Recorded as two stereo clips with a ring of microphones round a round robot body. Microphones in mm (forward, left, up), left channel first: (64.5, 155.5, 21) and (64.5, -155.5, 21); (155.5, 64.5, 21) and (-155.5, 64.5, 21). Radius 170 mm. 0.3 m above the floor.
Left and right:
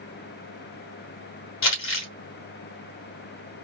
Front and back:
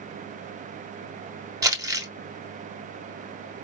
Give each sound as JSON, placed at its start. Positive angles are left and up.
{"t": 1.6, "sound": "crumpling", "azimuth_deg": 105, "distance_m": 2.5}